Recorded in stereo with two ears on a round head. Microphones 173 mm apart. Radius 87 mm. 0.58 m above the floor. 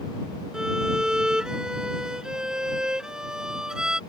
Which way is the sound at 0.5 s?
5° right (ahead or behind).